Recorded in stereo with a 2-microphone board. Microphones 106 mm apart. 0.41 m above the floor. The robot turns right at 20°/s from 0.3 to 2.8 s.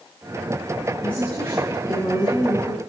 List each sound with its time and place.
1.0 s a woman speaking: 10° left, 3 m; by 2.8 s 45° left, 3 m